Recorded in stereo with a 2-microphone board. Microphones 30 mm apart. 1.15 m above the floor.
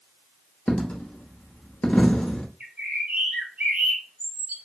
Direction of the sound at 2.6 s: 70° right (ahead or behind).